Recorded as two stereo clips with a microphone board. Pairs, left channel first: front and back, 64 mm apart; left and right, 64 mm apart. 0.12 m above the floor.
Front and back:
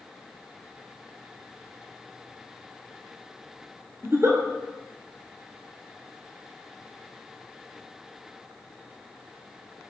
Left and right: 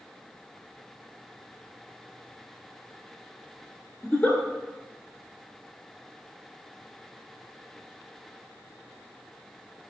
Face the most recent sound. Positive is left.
turn(degrees=155)